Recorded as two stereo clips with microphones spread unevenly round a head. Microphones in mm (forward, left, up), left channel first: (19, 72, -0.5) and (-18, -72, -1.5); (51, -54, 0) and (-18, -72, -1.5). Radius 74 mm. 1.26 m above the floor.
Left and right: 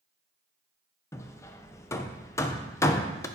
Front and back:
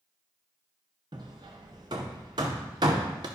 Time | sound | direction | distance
1.1 | hammering | 145° left | 0.5 m